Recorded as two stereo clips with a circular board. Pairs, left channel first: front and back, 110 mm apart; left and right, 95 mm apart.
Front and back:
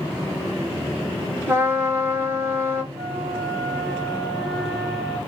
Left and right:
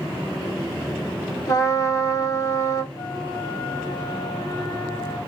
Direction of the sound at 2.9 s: 110° right.